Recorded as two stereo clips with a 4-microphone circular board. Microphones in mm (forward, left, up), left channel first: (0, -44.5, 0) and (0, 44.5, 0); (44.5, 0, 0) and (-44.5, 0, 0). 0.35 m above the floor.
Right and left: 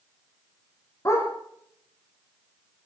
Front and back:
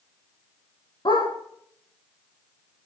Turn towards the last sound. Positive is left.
turn(degrees=-30)